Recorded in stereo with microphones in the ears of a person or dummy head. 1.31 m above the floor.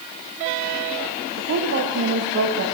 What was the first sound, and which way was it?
A woman speaking, 55° right (ahead or behind).